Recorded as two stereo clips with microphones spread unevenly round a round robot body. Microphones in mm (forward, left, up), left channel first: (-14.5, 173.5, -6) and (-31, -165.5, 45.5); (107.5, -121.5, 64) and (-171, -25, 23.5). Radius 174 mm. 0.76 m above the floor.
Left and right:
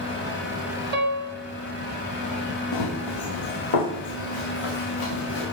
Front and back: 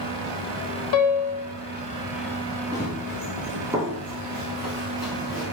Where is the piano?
30° right, 1.6 m.